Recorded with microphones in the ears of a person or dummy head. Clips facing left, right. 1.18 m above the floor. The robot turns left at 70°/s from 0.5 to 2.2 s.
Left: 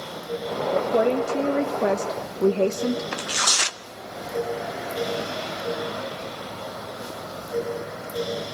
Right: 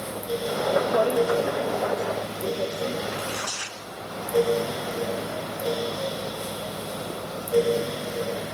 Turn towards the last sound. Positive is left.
turn(degrees=80)